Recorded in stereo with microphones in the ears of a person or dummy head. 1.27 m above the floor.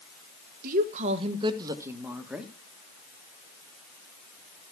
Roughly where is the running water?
No running water in this recording.